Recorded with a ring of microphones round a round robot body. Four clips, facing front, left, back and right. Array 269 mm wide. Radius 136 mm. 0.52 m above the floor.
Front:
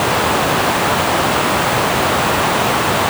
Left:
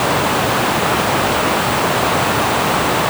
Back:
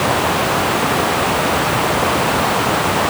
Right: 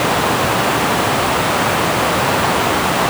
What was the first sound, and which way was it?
Only background noise.